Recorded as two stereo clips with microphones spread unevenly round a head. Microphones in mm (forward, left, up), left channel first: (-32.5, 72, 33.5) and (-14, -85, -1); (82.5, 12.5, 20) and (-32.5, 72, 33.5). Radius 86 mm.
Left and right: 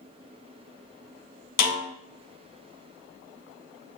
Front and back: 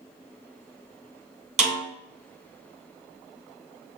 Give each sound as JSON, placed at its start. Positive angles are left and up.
{"t": 1.6, "sound": "a snare drum", "azimuth_deg": 125, "distance_m": 2.0}